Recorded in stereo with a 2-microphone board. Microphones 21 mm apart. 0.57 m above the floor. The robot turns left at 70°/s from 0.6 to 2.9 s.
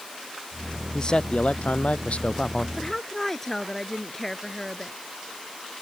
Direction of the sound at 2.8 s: 25° left (ahead or behind).